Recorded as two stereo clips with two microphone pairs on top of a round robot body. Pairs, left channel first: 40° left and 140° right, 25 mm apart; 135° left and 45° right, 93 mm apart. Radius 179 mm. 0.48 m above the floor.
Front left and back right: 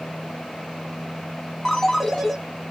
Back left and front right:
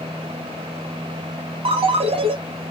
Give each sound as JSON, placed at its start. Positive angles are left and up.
{"t": 1.6, "sound": "a ringtone", "azimuth_deg": -35, "distance_m": 1.2}